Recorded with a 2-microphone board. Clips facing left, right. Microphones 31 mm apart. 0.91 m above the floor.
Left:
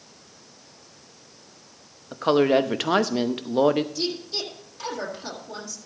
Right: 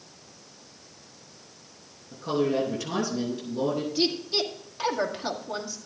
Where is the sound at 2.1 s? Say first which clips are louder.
Left 7 dB; 60° left (ahead or behind), 0.9 m.